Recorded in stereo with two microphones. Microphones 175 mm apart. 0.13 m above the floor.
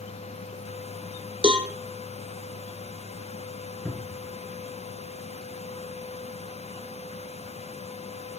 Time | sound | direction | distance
1.4 | a cowbell | 30° right (ahead or behind) | 1.2 m
3.9 | a cupboard door | 5° left (ahead or behind) | 1.6 m